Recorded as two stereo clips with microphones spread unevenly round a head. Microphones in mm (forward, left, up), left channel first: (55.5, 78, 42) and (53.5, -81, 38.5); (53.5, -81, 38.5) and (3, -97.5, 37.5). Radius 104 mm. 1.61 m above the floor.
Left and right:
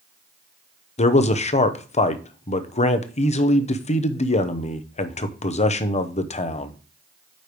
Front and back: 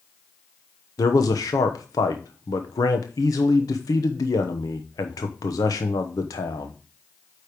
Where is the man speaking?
40° left, 0.9 m.